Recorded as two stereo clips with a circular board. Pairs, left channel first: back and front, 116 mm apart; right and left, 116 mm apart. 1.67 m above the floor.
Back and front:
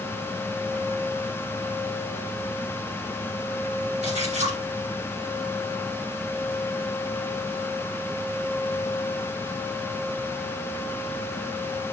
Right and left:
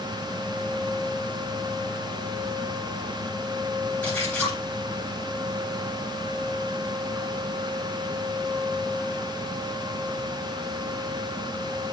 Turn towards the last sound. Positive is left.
turn(degrees=-15)